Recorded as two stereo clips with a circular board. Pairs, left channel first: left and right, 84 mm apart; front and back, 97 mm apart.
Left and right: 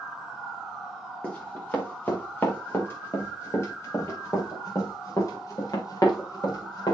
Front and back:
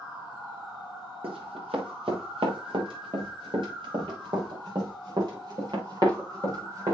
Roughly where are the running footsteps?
Behind.